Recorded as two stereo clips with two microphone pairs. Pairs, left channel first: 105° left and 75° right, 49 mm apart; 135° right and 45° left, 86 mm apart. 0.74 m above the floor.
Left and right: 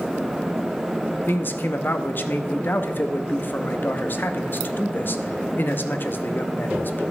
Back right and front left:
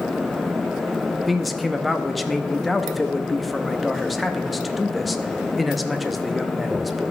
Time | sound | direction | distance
1.3 | a man speaking | 130° left | 0.6 m